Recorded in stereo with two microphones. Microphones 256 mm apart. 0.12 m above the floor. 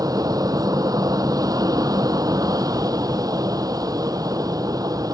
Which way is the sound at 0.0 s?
15° right (ahead or behind).